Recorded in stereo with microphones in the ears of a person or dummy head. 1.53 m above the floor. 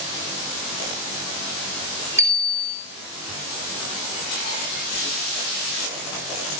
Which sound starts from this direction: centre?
A bicycle bell, at 2.2 s.